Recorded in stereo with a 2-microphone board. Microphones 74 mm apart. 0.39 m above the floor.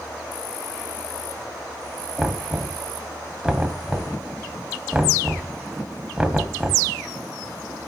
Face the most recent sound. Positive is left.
turn(degrees=-15)  # may be behind; listen again after turning